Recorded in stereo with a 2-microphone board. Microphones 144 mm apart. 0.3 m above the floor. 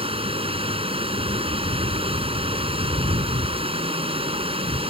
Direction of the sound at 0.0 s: 40° right (ahead or behind).